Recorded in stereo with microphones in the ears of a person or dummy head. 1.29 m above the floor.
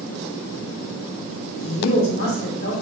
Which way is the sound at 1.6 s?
50° left (ahead or behind).